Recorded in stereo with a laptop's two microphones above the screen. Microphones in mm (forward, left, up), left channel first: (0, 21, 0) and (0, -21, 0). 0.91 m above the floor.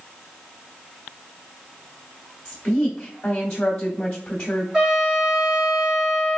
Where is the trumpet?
15° right (ahead or behind), 1.9 m.